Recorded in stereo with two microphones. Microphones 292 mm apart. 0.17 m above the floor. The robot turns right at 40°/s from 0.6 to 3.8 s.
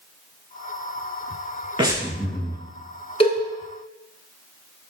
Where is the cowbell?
20° left (ahead or behind), 1.0 m; by 3.4 s 25° left (ahead or behind), 1.0 m.